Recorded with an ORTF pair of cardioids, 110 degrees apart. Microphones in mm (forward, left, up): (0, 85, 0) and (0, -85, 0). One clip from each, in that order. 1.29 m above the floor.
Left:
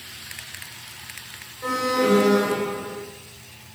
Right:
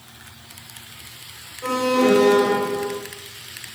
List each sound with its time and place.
1.6 s an alarm: 25° right, 3.5 m